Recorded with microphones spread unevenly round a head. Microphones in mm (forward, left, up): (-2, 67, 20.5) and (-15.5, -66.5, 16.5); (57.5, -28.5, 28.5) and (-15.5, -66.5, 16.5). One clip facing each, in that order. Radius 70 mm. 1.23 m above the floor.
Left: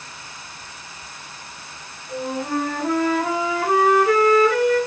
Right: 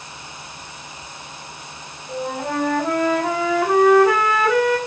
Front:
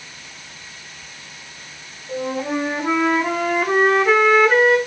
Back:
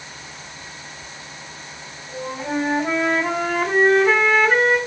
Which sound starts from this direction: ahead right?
A flute, at 2.1 s.